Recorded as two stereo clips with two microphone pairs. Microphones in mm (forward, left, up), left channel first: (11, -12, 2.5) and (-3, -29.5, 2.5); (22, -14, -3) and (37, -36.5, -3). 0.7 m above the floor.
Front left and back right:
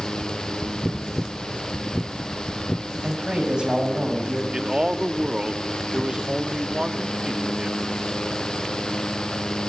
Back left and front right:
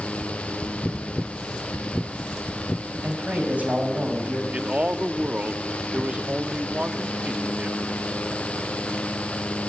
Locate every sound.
3.0 s a man speaking: 85° right, 5.5 m
4.5 s a man speaking: 80° right, 1.0 m